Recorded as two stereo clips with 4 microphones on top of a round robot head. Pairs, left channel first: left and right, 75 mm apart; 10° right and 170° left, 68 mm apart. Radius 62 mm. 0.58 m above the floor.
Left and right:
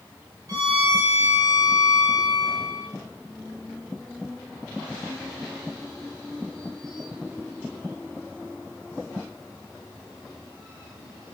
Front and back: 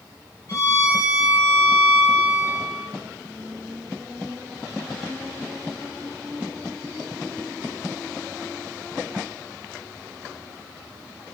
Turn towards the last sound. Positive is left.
turn(degrees=-55)